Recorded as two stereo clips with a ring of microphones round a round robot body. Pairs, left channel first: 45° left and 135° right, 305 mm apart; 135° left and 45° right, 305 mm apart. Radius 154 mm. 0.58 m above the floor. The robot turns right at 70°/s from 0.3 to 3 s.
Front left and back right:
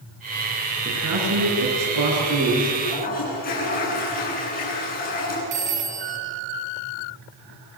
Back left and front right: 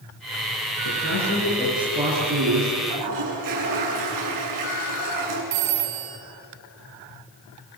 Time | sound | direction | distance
0.8 | a man speaking | 160° left | 10 m
2.8 | a toilet flushing | 30° right | 8.5 m
5.5 | a phone ringing | 70° right | 3.5 m